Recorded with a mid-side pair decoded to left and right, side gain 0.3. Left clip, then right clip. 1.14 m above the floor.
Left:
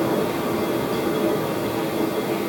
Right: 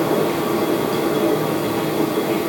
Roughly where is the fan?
Ahead right.